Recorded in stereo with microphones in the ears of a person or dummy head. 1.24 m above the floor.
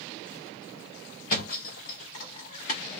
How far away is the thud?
About 1.1 m.